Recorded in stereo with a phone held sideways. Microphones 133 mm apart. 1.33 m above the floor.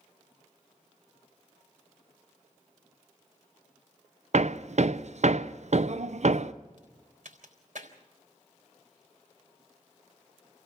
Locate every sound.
4.3 s hammering: 60° right (ahead or behind), 0.5 m
6.8 s a crack: 70° right (ahead or behind), 3.5 m